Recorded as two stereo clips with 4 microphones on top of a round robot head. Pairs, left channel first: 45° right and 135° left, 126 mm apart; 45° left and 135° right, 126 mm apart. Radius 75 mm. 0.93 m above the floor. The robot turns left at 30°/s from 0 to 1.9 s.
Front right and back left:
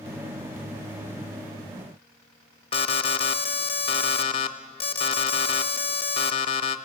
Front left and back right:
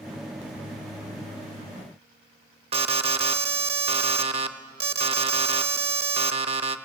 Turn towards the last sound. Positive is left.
turn(degrees=-90)